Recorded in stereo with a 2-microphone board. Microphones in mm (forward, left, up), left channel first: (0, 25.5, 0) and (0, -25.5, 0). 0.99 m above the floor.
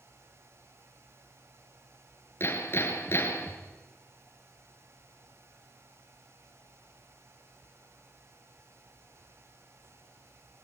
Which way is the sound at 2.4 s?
50° left (ahead or behind).